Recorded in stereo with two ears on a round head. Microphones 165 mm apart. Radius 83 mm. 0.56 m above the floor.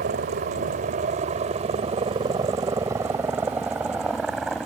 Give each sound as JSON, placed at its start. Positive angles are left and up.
{"t": 0.0, "sound": "a helicopter", "side_deg": -55}